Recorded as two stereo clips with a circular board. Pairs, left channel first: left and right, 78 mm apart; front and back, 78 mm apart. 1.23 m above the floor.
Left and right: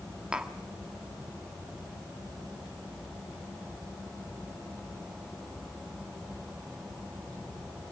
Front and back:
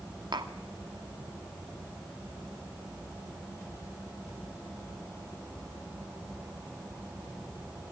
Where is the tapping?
170° right, 1.6 m.